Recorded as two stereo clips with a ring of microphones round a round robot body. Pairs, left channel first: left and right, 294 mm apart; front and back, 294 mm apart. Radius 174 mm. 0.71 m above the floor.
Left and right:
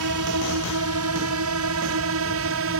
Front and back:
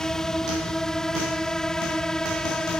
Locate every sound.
0.0 s a drone: 90° right; by 2.8 s 85° right